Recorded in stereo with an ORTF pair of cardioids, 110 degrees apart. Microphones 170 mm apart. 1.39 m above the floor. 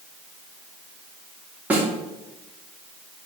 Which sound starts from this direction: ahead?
A snare drum, at 1.7 s.